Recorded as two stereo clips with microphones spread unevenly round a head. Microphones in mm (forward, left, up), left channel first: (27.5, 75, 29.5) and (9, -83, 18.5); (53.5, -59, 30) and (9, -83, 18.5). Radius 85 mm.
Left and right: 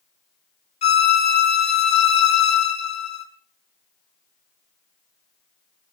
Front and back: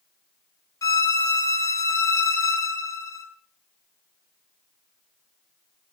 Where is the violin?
35° left, 2 m.